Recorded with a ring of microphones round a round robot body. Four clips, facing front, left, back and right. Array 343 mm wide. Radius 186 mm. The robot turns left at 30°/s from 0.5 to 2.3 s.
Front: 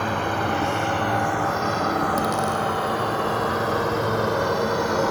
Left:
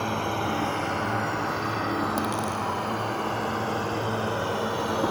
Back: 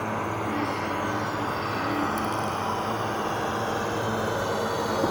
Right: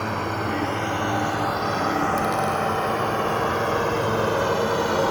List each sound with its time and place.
0.0 s a drone: 10° left; by 5.1 s 50° right
2.2 s a dropped coin: 25° left